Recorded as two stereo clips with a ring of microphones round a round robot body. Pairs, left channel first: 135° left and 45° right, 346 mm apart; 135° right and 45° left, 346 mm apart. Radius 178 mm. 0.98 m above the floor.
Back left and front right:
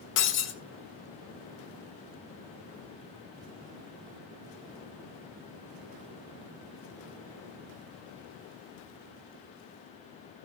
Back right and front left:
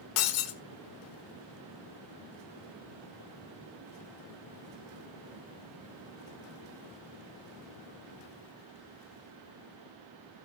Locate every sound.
0.2 s breaking glass: 165° right, 1.7 m